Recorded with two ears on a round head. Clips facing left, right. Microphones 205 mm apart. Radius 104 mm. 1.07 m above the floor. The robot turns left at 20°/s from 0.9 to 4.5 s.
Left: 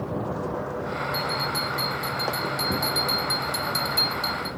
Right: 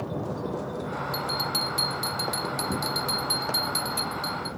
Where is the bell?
130° right, 1.4 m; by 4.5 s 165° left, 1.4 m.